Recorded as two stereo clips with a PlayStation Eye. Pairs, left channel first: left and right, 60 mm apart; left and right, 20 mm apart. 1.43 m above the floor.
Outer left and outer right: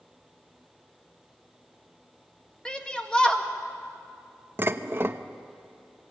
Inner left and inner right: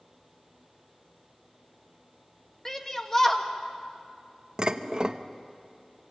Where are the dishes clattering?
35° right (ahead or behind), 0.8 m.